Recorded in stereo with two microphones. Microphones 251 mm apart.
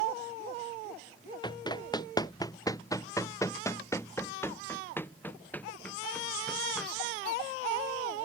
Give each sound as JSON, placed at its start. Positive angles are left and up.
{"t": 1.4, "sound": "running footsteps", "side_deg": 15}